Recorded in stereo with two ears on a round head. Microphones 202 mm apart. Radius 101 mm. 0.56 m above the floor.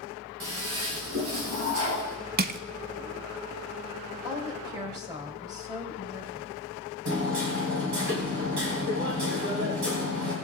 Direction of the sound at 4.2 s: 15° right (ahead or behind).